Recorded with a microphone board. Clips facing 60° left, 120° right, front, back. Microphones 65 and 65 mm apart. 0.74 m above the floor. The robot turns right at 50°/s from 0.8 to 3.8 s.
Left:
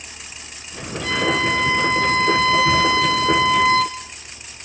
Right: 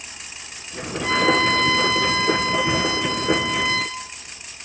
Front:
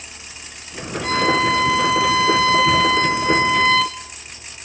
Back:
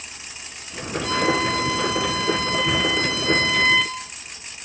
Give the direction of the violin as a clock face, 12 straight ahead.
2 o'clock.